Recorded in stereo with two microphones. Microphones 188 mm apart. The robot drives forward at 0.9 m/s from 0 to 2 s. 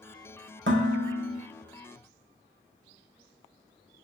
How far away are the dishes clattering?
About 0.9 m.